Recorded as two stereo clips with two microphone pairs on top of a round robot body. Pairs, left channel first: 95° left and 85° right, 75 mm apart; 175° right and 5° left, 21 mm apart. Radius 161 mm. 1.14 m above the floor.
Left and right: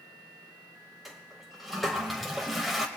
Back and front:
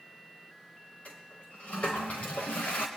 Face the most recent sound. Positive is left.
turn(degrees=180)